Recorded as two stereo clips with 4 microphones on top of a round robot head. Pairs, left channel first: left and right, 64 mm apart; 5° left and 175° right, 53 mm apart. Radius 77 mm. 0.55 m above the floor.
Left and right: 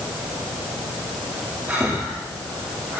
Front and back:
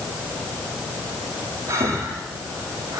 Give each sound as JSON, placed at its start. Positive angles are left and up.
{"t": 1.7, "sound": "breathing", "azimuth_deg": -150, "distance_m": 8.0}